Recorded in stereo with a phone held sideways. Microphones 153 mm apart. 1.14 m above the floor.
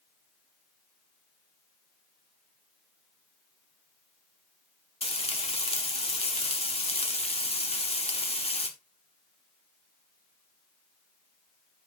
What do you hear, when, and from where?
5.0 s frying: 40° left (ahead or behind), 1.3 m